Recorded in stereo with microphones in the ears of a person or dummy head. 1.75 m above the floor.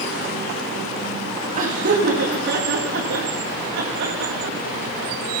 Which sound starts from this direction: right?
Laughter, at 1.6 s.